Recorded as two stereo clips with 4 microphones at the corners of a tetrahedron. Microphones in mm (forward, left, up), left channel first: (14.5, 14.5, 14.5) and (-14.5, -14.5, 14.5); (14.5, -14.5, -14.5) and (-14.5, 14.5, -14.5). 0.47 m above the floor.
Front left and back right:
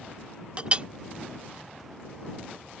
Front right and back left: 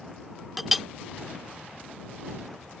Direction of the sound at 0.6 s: 140° right.